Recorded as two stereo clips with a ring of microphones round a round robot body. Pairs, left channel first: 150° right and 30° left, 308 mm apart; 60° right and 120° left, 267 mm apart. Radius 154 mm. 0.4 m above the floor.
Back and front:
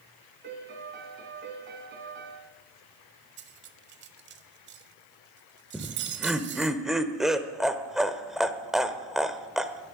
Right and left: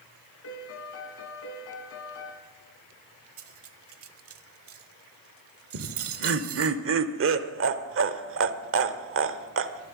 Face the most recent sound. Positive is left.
turn(degrees=120)